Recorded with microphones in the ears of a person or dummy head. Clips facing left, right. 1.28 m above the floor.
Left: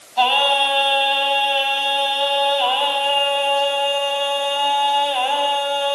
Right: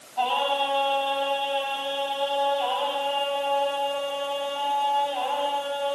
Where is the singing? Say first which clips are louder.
Left 6 dB; 80° left, 6 m.